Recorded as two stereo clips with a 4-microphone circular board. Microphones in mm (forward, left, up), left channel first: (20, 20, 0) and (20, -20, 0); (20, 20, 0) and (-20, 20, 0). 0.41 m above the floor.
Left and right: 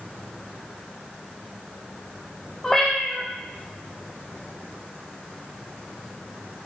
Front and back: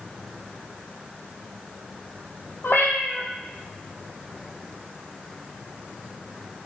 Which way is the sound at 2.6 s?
15° left.